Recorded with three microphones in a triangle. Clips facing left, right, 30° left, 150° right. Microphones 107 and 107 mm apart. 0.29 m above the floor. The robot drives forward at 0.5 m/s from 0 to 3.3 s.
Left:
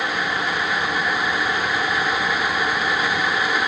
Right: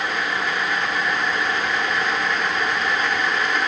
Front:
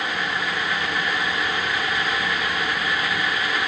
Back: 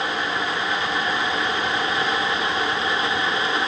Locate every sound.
Only background noise.